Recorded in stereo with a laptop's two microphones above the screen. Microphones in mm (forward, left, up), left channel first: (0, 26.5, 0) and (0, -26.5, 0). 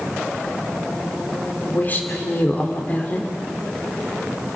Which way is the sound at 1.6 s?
35° left (ahead or behind).